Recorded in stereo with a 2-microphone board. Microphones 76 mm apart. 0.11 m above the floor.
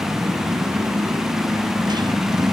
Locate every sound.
0.0 s a motorcycle: 75° right (ahead or behind); by 2.5 s 65° right (ahead or behind)